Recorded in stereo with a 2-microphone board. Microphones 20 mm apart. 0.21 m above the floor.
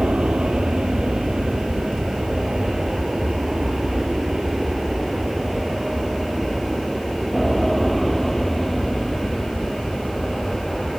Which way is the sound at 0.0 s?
55° right (ahead or behind).